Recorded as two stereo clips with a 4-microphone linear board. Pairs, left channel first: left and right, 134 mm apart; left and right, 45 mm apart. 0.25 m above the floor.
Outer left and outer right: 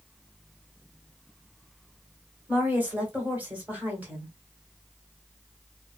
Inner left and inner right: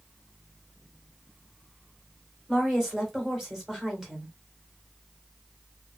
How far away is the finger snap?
No finger snap in this recording.